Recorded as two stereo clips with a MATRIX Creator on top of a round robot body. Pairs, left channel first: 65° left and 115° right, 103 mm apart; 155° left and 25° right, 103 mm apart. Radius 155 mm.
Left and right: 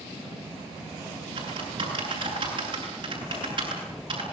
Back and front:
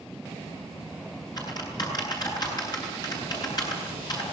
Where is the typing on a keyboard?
150° right, 9 m.